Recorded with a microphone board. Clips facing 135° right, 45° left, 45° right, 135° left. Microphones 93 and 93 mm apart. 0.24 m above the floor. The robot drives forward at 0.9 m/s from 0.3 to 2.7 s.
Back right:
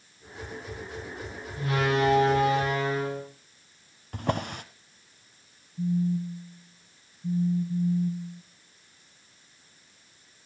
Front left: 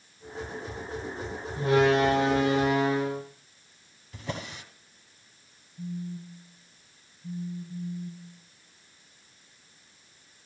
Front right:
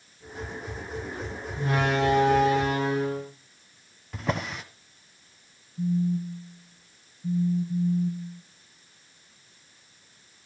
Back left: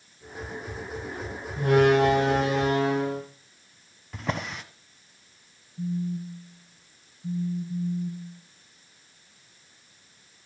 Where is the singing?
I don't hear singing.